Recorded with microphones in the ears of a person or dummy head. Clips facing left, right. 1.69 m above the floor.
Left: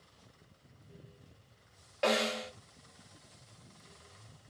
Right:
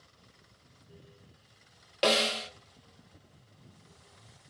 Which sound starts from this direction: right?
A snare drum, at 2.0 s.